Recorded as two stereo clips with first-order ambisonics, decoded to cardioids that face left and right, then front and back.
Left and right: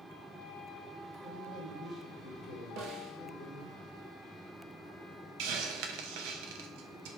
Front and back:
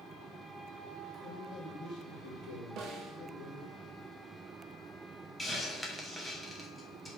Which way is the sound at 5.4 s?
85° right.